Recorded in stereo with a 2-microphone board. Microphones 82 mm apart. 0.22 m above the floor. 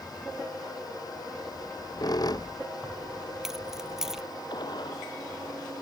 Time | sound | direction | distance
1.5 | a squeak | 50° left (ahead or behind) | ?
2.8 | keys jangling | 5° right (ahead or behind) | ?
4.5 | a gunshot | 55° left (ahead or behind) | ?